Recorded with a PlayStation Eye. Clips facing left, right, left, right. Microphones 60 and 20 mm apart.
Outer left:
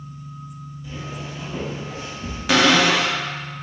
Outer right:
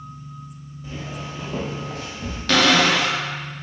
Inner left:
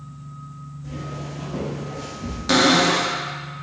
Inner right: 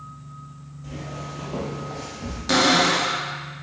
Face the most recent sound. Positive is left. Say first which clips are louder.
# outer left 1 dB, inner left 2 dB
turn(degrees=10)  # may be behind; listen again after turning